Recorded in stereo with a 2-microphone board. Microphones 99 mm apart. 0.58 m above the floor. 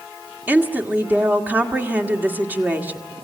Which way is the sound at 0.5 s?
20° right (ahead or behind).